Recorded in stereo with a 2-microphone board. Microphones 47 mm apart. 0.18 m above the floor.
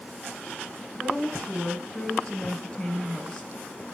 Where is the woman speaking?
25° left (ahead or behind), 3.5 m.